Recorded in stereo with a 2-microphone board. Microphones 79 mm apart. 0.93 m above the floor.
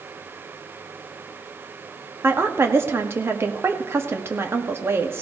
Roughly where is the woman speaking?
Right.